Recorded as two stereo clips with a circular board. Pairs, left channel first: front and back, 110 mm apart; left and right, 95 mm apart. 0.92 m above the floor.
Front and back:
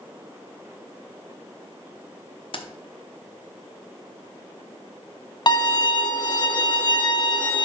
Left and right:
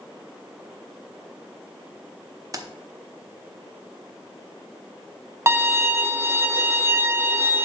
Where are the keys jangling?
35° right, 0.7 m.